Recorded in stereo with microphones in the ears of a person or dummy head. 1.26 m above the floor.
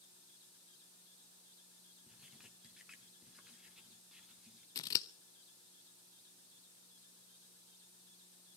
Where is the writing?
5° right (ahead or behind), 1.6 m.